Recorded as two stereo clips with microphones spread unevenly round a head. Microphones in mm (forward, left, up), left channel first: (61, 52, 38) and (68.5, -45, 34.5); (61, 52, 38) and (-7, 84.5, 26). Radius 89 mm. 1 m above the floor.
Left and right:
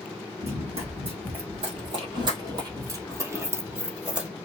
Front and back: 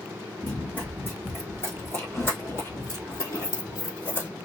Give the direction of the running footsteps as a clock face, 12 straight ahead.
3 o'clock.